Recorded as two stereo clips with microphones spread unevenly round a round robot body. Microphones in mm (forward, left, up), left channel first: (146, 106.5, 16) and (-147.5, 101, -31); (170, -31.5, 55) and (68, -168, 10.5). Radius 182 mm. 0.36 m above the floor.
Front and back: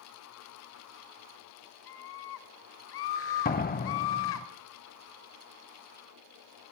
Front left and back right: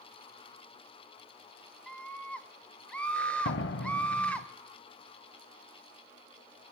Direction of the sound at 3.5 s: 65° left.